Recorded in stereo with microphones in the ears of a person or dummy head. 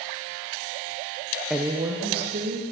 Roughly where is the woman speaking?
Centre.